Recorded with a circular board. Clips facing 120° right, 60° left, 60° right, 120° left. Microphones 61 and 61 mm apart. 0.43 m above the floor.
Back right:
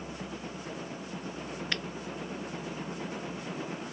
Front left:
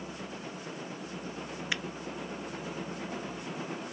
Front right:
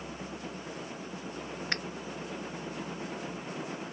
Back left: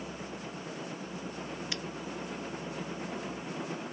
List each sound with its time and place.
1.7 s a finger snap: 20° right